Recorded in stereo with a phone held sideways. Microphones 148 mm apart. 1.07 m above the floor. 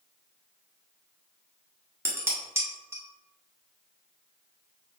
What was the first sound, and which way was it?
Dishes clattering, 20° right (ahead or behind).